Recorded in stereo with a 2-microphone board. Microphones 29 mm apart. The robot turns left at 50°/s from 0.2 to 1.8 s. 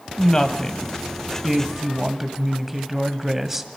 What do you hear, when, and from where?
0.2 s a woman speaking: 60° left, 1.4 m; by 3.7 s 20° right, 1.4 m